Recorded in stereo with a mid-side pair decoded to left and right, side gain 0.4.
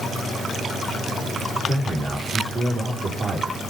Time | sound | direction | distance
1.6 | a man speaking | 55° right | 6 m